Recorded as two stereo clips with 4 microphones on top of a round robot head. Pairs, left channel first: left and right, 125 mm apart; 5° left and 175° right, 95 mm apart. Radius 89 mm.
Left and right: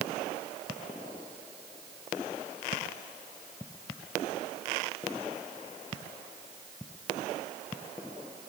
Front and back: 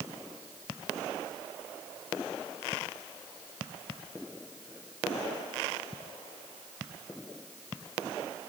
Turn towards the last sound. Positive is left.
No sound to turn to.